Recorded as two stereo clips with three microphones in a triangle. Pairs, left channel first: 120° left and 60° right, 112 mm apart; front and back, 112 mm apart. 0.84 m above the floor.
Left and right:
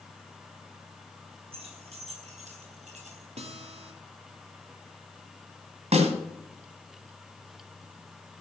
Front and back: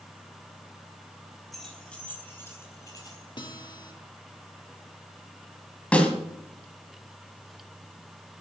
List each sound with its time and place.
1.5 s keys jangling: 90° right, 4 m; by 3.3 s 55° right, 4.5 m
3.4 s a guitar: 45° right, 1.8 m
5.9 s a snare drum: 80° right, 2.5 m